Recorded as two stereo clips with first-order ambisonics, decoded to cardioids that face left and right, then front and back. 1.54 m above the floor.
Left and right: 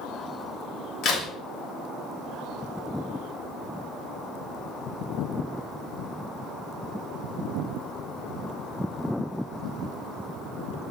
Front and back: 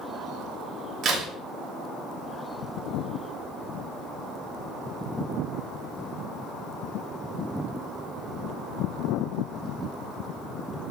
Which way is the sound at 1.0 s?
135° left.